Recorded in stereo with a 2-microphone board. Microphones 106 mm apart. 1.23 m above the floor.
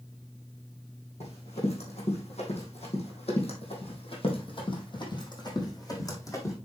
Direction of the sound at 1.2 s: 70° left (ahead or behind).